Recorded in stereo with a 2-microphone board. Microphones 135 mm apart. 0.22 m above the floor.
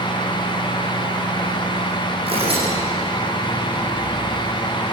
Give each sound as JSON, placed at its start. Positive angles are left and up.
{"t": 2.3, "sound": "tearing paper", "side_deg": -45, "distance_m": 9.5}